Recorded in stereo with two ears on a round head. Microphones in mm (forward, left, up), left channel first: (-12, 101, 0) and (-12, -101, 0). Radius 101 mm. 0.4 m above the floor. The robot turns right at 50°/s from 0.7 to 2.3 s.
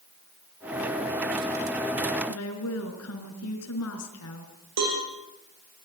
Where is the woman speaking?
70° left (ahead or behind), 5 m.